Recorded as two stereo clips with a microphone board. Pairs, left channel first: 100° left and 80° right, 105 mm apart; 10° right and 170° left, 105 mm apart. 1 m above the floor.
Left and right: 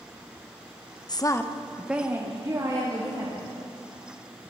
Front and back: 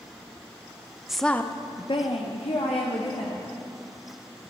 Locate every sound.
1.1 s a woman speaking: 85° left, 0.6 m; by 3.5 s 30° right, 1.7 m